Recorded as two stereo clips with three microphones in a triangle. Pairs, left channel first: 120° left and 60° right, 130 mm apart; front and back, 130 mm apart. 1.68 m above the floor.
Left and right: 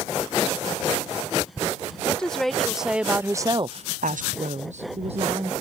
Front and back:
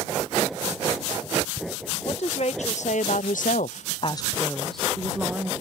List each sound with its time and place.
2.0 s a woman speaking: 35° left; by 5.5 s 105° right